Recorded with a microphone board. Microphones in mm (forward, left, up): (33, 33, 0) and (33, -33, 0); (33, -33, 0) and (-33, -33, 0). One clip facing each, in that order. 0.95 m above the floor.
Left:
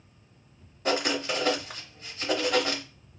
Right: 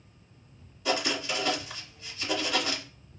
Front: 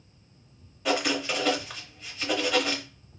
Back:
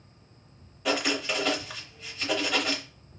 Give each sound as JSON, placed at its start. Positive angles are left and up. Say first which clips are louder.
{"t": 0.8, "sound": "writing", "louder": "left 2 dB, front 1 dB", "azimuth_deg": 90, "distance_m": 0.9}